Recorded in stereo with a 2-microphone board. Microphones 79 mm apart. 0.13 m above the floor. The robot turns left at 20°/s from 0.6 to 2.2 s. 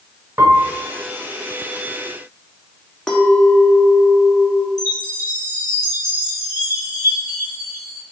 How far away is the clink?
About 0.7 m.